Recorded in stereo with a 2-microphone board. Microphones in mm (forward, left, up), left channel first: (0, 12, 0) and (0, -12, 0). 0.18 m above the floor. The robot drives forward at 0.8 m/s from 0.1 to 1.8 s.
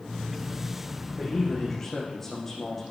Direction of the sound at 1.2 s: 10° left (ahead or behind).